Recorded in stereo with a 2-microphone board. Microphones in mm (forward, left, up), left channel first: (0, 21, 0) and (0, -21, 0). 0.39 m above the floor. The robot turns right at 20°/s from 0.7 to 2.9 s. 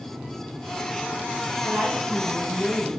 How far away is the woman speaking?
About 4 m.